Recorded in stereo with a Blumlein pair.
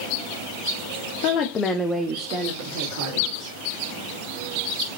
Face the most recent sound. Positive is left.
turn(degrees=-60)